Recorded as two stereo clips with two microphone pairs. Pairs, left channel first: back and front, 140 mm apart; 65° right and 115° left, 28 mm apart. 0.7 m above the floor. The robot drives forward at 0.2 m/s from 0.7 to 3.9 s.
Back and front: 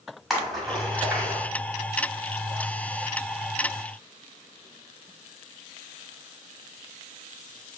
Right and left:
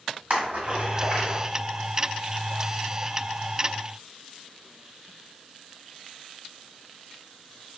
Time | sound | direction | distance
0.3 | a splash | 85° left | 1.6 m